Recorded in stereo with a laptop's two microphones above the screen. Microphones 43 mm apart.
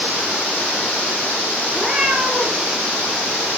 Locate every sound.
1.7 s a cat meowing: 15° right (ahead or behind), 5 m